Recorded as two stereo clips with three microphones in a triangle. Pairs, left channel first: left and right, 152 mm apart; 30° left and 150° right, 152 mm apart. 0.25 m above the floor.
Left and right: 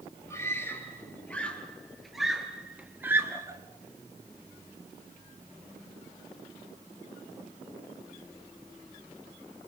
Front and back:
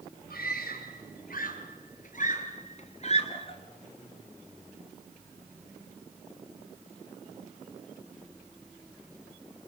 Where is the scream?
15° left, 5.5 m; by 3.6 s 20° right, 4 m.